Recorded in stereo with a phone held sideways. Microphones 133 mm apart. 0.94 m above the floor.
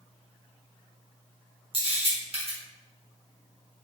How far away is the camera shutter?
About 1.4 m.